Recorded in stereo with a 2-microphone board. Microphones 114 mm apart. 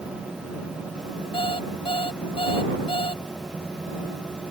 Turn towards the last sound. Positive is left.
turn(degrees=55)  # may be behind; listen again after turning